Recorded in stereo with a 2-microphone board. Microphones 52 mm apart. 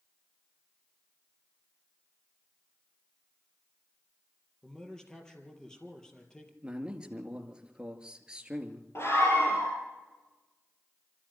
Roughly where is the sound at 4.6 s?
Centre.